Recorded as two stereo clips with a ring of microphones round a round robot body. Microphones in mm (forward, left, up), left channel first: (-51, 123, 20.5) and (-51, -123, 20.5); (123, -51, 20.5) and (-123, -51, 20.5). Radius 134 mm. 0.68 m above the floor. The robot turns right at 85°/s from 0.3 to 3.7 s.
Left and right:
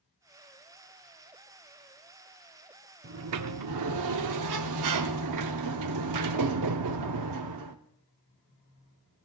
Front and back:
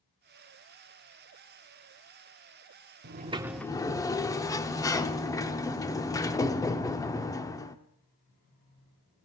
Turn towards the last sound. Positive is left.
turn(degrees=-80)